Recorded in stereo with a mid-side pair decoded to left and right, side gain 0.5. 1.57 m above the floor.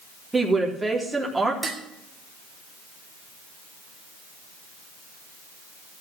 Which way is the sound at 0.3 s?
15° right.